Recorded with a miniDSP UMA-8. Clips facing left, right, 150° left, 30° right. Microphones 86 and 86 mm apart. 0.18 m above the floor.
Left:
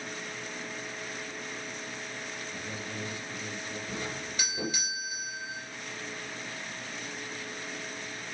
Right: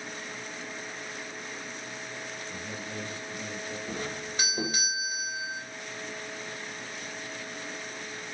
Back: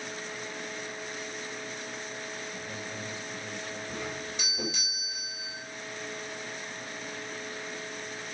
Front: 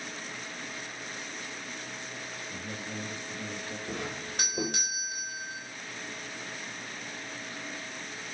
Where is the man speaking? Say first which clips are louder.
Right 1 dB, even; 50° right, 1.8 m.